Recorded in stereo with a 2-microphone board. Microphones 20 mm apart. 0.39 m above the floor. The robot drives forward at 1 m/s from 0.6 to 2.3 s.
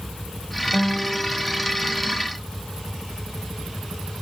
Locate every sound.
0.7 s a guitar: 25° left (ahead or behind), 1.8 m; by 2.1 s 15° left (ahead or behind), 3 m